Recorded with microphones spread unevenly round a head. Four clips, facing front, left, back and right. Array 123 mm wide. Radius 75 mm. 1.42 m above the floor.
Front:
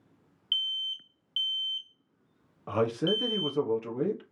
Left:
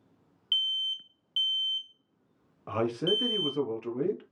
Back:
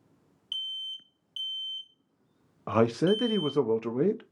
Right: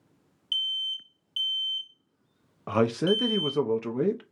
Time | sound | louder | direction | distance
0.5 | an alarm | even, front 5 dB | 30° left | 0.8 m
2.7 | a man speaking | right 5 dB, back 4 dB | 175° right | 0.7 m